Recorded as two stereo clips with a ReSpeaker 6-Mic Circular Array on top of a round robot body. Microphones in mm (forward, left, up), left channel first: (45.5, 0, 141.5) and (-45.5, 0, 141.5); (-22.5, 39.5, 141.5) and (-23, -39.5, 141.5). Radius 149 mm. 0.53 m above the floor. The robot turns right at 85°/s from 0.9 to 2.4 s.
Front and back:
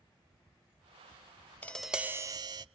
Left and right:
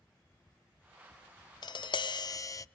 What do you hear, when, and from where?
1.6 s tapping: 70° left, 0.5 m; by 2.6 s 140° left, 0.5 m